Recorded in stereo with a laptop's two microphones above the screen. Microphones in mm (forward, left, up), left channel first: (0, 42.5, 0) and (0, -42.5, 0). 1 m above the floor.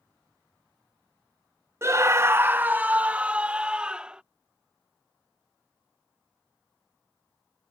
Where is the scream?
30° right (ahead or behind); by 4.2 s 10° right (ahead or behind).